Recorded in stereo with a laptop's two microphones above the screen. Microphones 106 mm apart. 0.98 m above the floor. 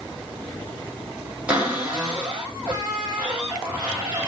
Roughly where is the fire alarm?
I don't hear a fire alarm.